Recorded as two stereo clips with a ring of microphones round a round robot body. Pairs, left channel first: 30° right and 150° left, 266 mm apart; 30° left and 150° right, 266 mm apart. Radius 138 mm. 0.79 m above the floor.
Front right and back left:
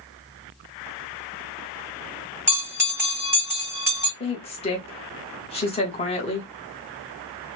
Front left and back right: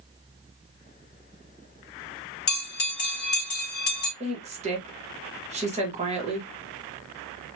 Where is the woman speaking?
90° right, 1.2 m.